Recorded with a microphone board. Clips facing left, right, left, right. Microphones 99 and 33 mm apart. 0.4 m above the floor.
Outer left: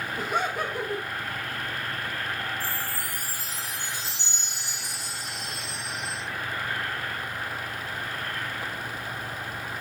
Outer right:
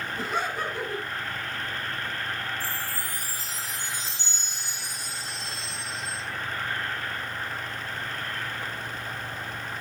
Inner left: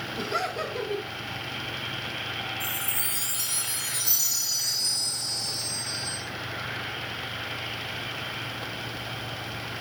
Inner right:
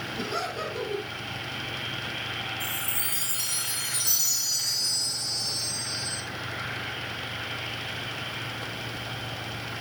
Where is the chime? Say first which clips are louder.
Outer left 1 dB, even; 10° left (ahead or behind), 4 m.